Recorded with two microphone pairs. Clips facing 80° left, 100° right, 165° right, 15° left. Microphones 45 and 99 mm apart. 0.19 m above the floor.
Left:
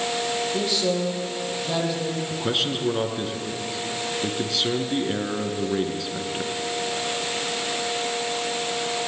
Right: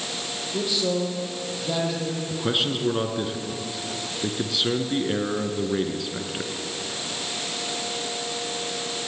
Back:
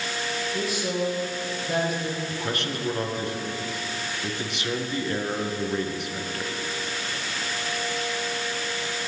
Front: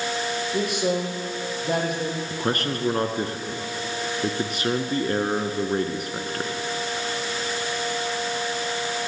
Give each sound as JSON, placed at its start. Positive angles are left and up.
{"t": 0.5, "sound": "a man speaking", "azimuth_deg": -15, "distance_m": 8.0}
{"t": 2.3, "sound": "a man speaking", "azimuth_deg": -15, "distance_m": 2.5}